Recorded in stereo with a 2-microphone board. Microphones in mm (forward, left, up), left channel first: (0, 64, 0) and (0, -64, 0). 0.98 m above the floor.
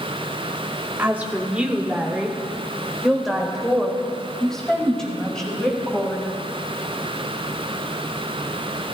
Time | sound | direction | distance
1.0 | a woman speaking | 15° right (ahead or behind) | 1.9 m